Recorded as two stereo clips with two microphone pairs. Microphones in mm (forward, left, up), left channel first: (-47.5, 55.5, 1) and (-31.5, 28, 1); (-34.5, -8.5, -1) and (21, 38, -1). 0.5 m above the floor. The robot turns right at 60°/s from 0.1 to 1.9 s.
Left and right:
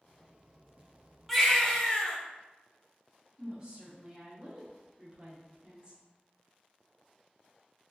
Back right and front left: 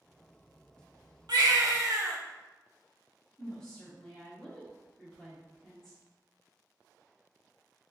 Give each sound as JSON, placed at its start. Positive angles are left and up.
{"t": 1.3, "sound": "a baby crying", "azimuth_deg": 40, "distance_m": 0.6}
{"t": 3.4, "sound": "a woman speaking", "azimuth_deg": -65, "distance_m": 0.7}